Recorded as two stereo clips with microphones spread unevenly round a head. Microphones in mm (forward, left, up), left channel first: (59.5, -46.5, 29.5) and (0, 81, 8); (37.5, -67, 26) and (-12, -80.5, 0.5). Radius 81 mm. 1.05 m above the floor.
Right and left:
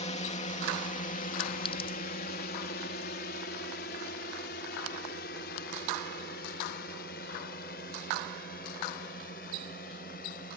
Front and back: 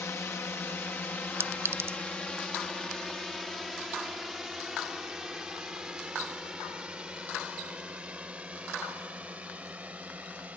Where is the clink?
110° right.